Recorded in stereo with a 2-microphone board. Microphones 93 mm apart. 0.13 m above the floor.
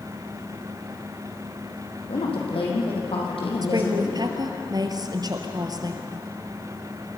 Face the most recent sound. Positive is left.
turn(degrees=-45)  # may be behind; listen again after turning